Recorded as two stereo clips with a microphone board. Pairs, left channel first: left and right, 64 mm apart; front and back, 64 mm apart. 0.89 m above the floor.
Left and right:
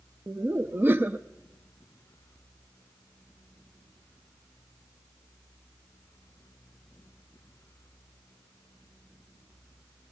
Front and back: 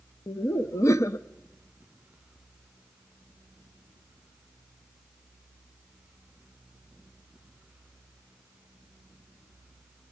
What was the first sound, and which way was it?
Laughter, 35° right.